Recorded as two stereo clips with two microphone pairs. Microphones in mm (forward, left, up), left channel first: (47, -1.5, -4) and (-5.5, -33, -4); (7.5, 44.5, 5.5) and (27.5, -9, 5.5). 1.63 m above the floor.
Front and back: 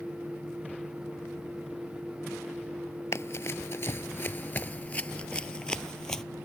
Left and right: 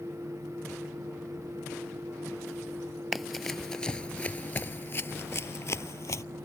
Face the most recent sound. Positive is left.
turn(degrees=115)